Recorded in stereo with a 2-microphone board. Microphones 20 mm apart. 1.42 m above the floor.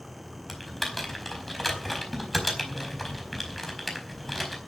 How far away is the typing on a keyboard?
About 4.5 m.